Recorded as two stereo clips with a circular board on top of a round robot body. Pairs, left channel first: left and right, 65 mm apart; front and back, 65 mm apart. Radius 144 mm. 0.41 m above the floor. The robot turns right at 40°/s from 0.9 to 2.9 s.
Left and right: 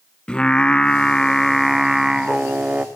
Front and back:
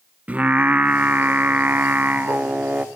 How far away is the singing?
About 0.7 m.